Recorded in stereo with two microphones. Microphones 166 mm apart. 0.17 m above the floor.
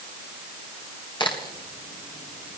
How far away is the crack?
About 1.7 m.